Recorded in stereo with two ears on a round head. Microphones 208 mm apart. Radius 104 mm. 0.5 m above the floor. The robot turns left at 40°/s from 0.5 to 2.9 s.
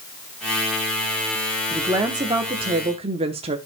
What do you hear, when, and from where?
1.7 s a woman speaking: 15° right (ahead or behind), 0.9 m; by 3.6 s 25° right (ahead or behind), 0.9 m